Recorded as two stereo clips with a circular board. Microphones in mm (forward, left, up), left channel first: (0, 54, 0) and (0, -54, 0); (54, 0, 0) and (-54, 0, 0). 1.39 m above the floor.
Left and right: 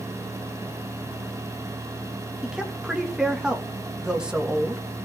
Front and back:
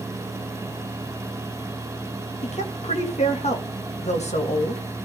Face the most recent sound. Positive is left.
turn(degrees=-5)